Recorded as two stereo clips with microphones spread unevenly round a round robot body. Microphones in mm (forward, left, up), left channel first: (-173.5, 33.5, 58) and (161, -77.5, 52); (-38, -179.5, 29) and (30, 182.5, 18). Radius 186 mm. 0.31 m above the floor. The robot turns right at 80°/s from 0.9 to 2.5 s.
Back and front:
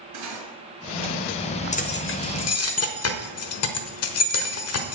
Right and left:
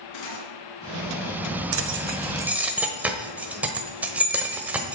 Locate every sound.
0.1 s cutlery clinking: 60° right, 2.5 m
1.7 s keys jangling: 100° left, 1.1 m; by 5.0 s 160° left, 1.1 m